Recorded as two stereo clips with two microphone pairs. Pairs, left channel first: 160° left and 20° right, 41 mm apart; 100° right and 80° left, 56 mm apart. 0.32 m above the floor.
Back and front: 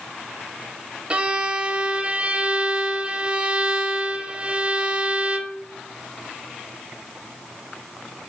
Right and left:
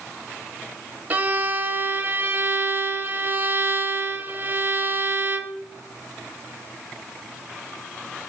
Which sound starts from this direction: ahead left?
A violin, at 1.1 s.